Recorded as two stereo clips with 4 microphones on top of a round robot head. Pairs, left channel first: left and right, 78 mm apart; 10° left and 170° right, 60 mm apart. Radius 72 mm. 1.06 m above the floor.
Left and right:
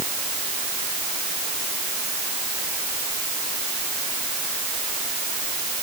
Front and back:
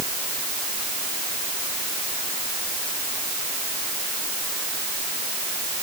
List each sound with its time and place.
Only background noise.